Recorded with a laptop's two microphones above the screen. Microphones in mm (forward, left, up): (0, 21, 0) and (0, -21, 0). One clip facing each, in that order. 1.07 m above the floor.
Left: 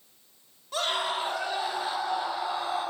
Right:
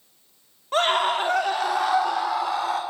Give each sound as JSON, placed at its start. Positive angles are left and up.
{"t": 0.7, "sound": "a scream", "side_deg": -45, "distance_m": 2.5}